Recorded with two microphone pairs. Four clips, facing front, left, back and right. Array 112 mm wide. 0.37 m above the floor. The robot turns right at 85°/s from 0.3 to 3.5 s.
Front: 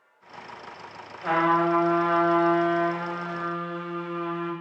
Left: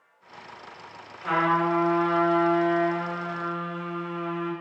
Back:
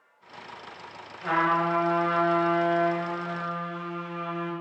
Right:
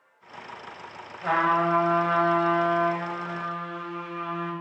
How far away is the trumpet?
About 1.7 m.